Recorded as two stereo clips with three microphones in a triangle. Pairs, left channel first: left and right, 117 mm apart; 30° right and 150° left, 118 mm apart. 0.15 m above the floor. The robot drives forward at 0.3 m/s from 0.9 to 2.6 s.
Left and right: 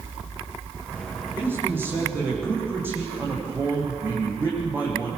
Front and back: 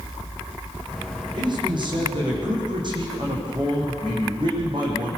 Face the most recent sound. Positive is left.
turn(degrees=-160)